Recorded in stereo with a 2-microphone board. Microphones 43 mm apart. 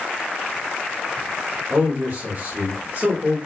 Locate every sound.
1.7 s a man speaking: 45° right (ahead or behind), 1.6 m